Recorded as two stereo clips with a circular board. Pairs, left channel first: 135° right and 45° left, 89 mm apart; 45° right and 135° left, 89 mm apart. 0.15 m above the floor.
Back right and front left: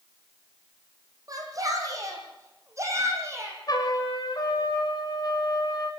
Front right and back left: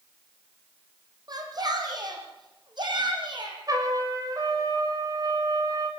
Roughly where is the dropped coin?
No dropped coin in this recording.